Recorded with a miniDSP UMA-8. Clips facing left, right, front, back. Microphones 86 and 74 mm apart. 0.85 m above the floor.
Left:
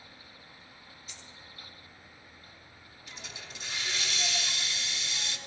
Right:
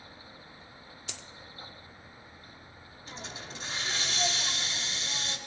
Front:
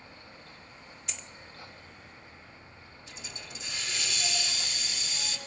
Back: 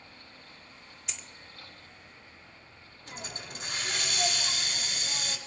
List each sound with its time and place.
1.1 s a dropped coin: 90° right, 0.9 m
3.1 s a hiss: 140° right, 2 m